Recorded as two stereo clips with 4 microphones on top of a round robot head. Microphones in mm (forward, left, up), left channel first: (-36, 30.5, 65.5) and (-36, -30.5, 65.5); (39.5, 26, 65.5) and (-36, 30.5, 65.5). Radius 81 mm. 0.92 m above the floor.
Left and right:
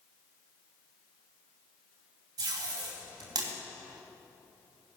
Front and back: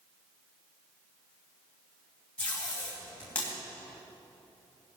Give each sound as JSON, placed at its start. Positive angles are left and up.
{"t": 2.4, "sound": "tape being pulled", "azimuth_deg": -80, "distance_m": 3.0}